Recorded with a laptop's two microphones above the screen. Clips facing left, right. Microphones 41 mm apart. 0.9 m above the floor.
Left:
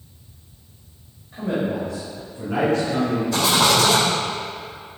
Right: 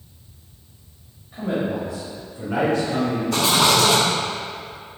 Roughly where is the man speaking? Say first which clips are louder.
Even; centre.